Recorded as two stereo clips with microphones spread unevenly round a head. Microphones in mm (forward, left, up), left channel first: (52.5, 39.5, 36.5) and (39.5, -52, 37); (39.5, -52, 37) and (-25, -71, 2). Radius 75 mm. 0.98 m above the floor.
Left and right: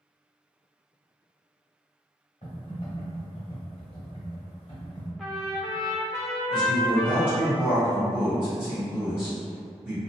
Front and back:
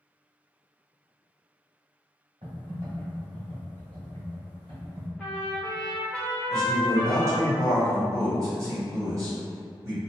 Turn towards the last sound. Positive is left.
turn(degrees=175)